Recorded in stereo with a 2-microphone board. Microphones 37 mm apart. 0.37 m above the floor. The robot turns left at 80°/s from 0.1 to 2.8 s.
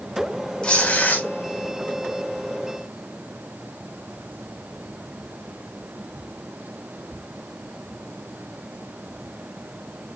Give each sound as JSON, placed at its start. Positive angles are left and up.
{"t": 0.6, "sound": "tearing paper", "azimuth_deg": 140, "distance_m": 1.5}